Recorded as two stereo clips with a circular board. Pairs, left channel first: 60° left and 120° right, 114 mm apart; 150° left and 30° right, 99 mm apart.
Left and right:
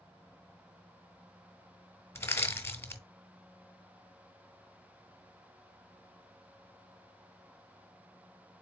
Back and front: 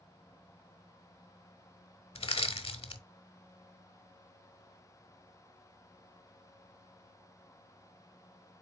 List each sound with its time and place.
2.1 s crushing: 125° left, 0.6 m